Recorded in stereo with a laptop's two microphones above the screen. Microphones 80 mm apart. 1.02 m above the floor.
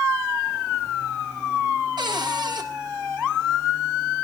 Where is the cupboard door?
65° right (ahead or behind), 1.8 m.